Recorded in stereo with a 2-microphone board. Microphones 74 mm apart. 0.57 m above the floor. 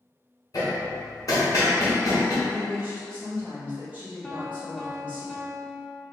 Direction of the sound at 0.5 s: 50° left (ahead or behind).